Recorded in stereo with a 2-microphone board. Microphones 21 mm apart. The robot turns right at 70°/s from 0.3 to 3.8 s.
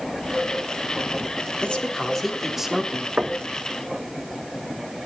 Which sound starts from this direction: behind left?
A man speaking, at 1.6 s.